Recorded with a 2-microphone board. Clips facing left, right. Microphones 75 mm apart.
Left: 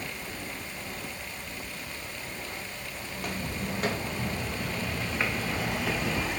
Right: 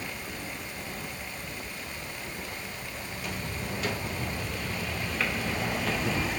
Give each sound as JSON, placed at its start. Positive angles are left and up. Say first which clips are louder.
{"t": 3.1, "sound": "footsteps", "louder": "left 3 dB", "side_deg": 50, "distance_m": 4.0}